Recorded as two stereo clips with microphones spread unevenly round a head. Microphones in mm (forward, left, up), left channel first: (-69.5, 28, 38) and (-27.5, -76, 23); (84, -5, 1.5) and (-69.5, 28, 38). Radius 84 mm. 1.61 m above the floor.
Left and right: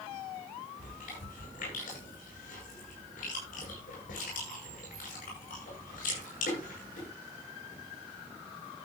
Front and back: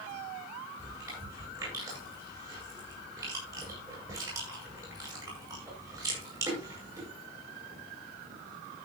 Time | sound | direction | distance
0.8 | chewing | 100° left | 9 m